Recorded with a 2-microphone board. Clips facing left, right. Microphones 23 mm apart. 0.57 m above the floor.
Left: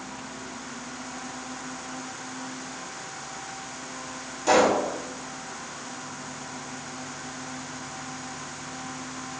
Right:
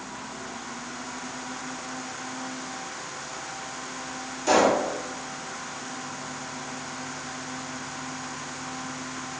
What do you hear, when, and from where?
4.5 s a pop: 20° left (ahead or behind), 1.6 m